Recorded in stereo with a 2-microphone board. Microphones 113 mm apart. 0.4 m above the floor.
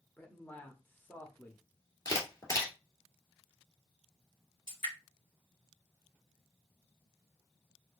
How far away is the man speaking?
About 0.8 m.